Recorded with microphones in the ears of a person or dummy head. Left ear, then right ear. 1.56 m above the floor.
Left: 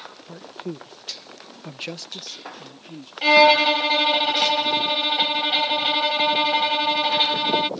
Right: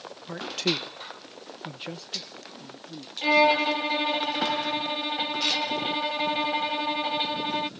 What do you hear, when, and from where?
0.3 s a man speaking: 80° right; by 3.1 s 50° left (ahead or behind)
3.2 s a violin: 35° left (ahead or behind)